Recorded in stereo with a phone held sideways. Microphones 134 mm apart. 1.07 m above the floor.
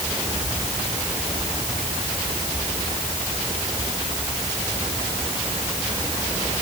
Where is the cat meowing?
No cat meowing in this recording.